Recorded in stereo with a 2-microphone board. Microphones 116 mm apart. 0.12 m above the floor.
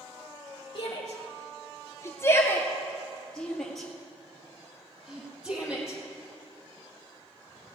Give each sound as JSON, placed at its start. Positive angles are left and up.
{"t": 0.8, "sound": "a shout", "side_deg": 50, "distance_m": 1.5}